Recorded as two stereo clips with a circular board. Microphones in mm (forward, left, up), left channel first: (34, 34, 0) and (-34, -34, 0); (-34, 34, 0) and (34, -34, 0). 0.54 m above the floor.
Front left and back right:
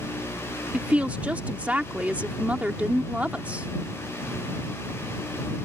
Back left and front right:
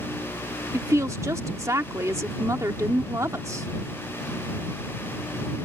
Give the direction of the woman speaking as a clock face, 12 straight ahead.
2 o'clock.